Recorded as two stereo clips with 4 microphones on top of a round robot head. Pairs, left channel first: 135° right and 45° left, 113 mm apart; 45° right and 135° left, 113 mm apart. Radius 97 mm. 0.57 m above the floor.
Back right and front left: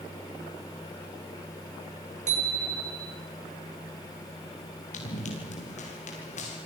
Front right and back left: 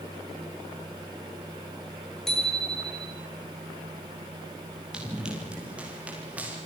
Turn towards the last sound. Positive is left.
turn(degrees=-150)